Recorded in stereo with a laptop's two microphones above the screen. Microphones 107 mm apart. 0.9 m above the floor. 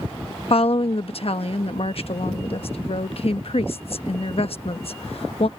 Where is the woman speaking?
65° left (ahead or behind).